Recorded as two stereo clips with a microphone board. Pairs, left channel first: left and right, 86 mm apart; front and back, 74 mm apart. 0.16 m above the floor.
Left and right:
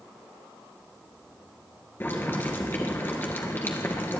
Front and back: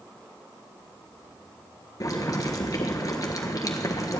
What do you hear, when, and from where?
2.0 s boiling: 30° left, 1.4 m